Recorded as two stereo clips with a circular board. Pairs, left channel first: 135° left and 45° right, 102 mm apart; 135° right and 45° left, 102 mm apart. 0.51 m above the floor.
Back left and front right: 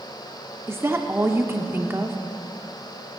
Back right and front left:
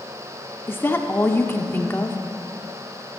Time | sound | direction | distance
0.7 | a woman speaking | 90° right | 0.8 m